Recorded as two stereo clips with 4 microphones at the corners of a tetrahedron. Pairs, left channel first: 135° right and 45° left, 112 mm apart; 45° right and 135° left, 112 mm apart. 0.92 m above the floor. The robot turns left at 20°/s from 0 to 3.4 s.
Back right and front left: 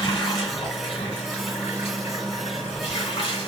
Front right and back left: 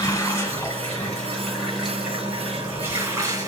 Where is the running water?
100° right, 1.5 m; by 3.5 s 170° right, 1.5 m.